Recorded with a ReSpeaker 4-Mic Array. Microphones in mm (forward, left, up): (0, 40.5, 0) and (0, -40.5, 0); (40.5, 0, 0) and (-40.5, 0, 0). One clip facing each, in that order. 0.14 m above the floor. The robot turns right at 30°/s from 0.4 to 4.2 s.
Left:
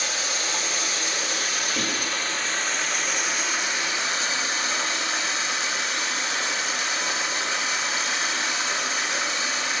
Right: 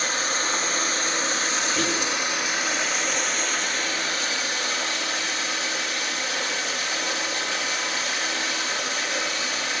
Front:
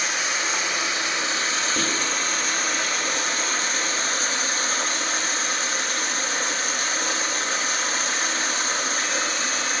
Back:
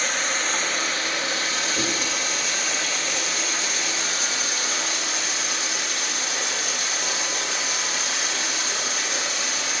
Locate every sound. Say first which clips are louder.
0.0 s running water: right 3 dB, even; 80° right, 1.9 m; by 9.8 s 35° left, 1.9 m
1.8 s whispering: right 4 dB, front 1 dB; 10° left, 4 m; by 2.0 s 20° left, 4 m